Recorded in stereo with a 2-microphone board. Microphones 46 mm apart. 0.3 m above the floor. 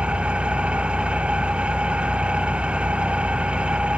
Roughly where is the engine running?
Right.